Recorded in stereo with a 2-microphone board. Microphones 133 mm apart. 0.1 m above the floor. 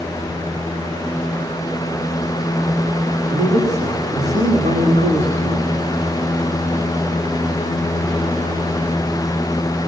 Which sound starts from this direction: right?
A man speaking, at 3.3 s.